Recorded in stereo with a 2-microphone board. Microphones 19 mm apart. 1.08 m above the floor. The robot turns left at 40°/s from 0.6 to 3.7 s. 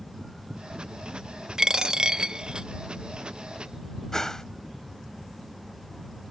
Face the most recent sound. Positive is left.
turn(degrees=35)  # may be behind; listen again after turning